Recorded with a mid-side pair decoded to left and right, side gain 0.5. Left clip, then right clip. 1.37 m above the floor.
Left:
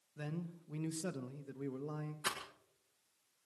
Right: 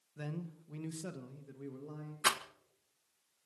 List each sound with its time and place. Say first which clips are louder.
0.2 s a man speaking: right 1 dB; 5° right, 1.7 m; by 2.1 s 45° left, 2.5 m
2.2 s a rattle: right 9 dB; 55° right, 1.5 m